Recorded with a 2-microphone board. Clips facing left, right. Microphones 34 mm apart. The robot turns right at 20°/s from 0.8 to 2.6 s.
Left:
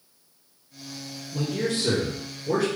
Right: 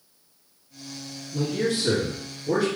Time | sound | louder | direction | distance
1.3 | a man speaking | right 2 dB | 25° left (ahead or behind) | 2.0 m